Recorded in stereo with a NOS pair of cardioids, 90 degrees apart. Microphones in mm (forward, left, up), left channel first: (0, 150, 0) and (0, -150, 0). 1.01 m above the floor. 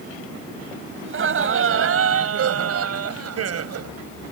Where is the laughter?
40° right; by 3.9 s 60° right.